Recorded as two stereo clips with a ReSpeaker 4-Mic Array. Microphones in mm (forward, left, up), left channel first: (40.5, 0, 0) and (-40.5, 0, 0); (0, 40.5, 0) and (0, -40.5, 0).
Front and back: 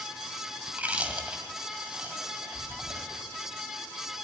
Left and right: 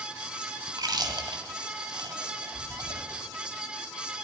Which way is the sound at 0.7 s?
110° right.